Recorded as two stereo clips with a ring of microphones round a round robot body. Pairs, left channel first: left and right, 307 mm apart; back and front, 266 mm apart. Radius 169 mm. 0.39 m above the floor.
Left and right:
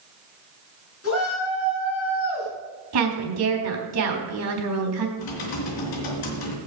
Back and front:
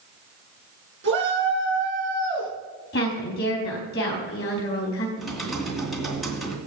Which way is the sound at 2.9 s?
125° right.